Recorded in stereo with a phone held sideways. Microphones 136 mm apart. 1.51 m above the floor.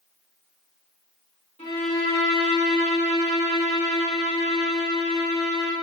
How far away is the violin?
About 1.2 m.